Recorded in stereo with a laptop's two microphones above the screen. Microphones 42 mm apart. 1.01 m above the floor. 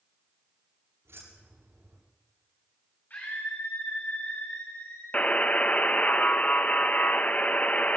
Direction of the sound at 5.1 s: 35° left (ahead or behind).